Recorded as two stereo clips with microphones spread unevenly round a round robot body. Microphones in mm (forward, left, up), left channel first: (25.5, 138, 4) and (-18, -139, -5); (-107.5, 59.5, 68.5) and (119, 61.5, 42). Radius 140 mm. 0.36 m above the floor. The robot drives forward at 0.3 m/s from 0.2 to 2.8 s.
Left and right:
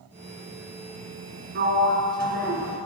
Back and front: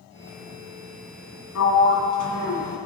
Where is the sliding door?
150° right, 1.7 m; by 2.8 s 155° right, 2 m.